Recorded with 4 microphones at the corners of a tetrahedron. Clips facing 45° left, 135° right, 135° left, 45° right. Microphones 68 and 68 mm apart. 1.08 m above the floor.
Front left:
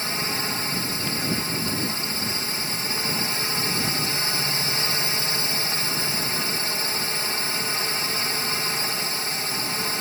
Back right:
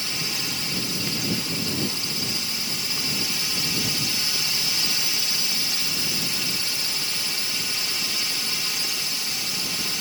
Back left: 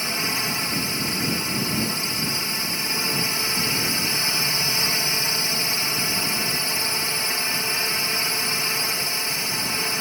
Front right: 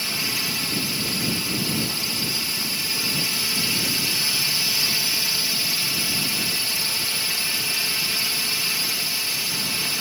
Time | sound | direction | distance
0.0 | a drone | 80° left | ?